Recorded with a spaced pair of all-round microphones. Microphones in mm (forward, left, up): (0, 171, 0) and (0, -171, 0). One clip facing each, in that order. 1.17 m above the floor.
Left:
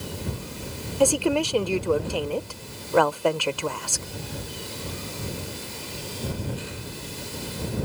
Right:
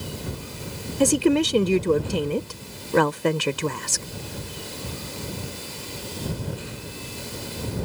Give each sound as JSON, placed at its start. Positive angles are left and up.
{"t": 1.0, "sound": "a woman speaking", "side_deg": -30}